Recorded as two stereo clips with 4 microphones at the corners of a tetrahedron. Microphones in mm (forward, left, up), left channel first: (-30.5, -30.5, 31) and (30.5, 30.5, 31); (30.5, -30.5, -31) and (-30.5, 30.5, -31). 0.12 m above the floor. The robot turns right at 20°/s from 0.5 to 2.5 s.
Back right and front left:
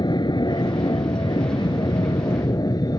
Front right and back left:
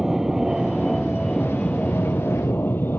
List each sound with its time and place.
0.0 s an aircraft: 140° right; by 3.0 s 105° right